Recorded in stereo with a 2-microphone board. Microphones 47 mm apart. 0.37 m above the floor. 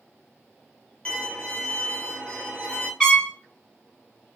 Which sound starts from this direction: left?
A violin, at 1.1 s.